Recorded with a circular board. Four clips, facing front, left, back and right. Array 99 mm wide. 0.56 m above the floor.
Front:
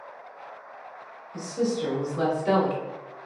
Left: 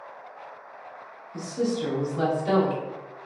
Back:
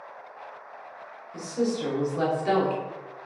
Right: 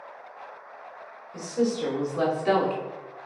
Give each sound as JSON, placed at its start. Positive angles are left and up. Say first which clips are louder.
{"t": 1.3, "sound": "a woman speaking", "louder": "right 1 dB, even", "azimuth_deg": -105, "distance_m": 1.6}